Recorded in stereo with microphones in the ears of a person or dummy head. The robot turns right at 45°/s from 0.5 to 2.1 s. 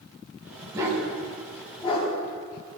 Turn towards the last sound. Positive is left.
turn(degrees=45)  # may be behind; listen again after turning